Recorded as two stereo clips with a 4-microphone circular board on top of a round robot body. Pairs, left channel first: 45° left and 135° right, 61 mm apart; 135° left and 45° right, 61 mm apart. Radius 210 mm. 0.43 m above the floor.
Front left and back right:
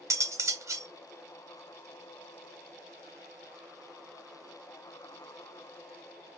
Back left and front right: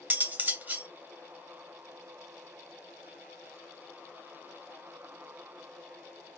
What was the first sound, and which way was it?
Cutlery clinking, 105° right.